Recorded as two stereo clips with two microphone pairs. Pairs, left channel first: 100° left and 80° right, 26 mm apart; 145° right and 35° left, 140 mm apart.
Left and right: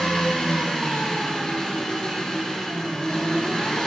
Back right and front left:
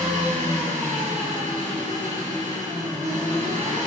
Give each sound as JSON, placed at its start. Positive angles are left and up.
{"t": 0.0, "sound": "an engine running", "azimuth_deg": 45, "distance_m": 3.0}